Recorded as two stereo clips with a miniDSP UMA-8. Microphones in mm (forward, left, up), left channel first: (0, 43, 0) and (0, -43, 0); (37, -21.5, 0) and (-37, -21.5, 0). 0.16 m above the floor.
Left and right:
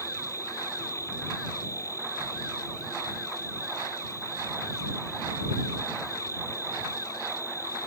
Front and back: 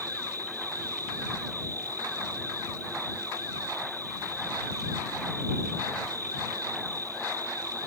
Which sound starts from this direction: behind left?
An insect, at 0.0 s.